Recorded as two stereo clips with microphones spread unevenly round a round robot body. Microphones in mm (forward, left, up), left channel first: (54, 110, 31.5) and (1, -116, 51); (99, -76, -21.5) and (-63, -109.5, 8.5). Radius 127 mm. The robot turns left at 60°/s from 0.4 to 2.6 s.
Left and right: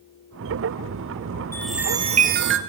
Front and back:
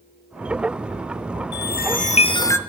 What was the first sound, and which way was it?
A chime, 5° right.